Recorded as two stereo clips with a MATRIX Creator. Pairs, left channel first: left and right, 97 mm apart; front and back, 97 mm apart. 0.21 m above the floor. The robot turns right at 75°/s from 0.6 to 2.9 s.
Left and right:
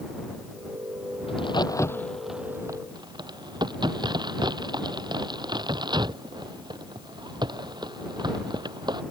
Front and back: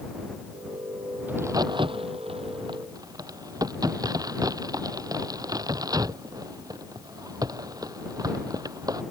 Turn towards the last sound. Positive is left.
turn(degrees=-130)